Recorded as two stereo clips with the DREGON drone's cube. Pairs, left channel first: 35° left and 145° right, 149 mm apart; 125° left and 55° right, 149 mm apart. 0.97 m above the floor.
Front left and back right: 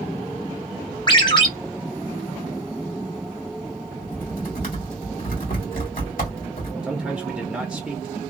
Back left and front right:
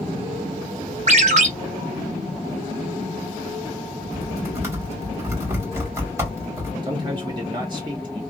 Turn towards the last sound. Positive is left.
turn(degrees=-65)